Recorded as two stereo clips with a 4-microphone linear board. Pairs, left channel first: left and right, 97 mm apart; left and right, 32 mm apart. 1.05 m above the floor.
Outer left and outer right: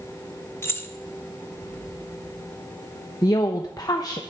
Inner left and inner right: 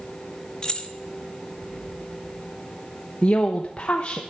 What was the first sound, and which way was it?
Keys jangling, 25° left (ahead or behind).